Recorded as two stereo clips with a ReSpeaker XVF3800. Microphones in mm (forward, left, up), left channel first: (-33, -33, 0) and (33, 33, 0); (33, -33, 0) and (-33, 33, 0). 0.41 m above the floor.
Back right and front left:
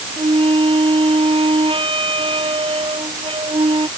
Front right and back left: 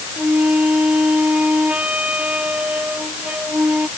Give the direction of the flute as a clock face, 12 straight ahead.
10 o'clock.